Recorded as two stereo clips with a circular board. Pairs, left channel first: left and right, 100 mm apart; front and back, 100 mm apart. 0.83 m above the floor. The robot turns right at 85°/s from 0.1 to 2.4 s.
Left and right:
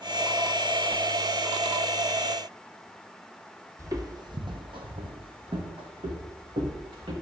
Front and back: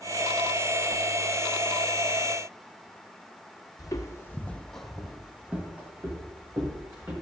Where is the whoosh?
Straight behind, 1.6 m; by 1.1 s 165° right, 1.6 m.